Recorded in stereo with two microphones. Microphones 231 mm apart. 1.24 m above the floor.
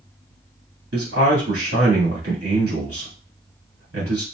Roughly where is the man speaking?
Right.